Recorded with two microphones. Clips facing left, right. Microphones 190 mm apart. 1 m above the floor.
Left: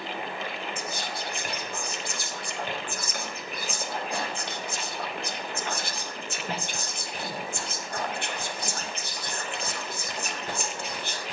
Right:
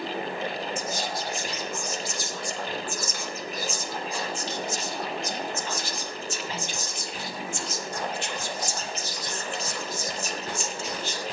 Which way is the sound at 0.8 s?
60° left (ahead or behind).